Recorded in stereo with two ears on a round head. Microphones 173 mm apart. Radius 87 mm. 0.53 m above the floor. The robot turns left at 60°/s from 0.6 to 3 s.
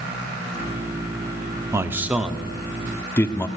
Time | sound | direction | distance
1.7 | a man speaking | 15° right (ahead or behind) | 0.7 m